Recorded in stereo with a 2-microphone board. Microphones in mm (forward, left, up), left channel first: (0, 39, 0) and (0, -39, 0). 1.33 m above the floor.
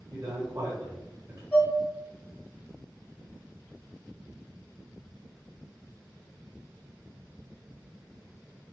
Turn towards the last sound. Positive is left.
turn(degrees=20)  # may be behind; listen again after turning